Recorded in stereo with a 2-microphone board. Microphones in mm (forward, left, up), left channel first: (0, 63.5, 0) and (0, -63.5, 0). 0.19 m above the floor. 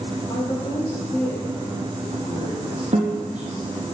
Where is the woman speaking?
35° left (ahead or behind), 6 m.